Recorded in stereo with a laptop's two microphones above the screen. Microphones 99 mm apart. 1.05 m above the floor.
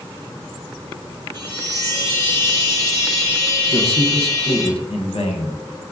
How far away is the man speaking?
About 0.6 m.